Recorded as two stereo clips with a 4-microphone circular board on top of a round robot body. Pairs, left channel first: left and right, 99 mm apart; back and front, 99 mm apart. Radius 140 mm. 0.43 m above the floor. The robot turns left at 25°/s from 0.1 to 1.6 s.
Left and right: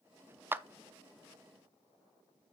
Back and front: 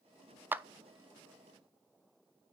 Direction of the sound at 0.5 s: 45° right.